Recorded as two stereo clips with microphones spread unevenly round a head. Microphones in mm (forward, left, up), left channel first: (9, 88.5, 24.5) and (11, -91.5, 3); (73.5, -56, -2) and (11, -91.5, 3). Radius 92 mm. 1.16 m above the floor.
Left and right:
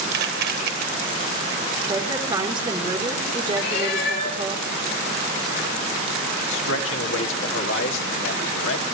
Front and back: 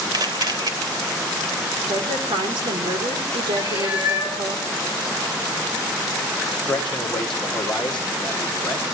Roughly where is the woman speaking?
Behind right.